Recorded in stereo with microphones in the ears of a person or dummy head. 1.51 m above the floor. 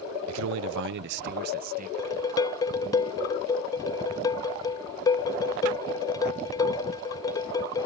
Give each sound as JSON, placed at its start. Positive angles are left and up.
{"t": 0.3, "sound": "a man speaking", "side_deg": -80}
{"t": 2.0, "sound": "dishes clattering", "side_deg": 20}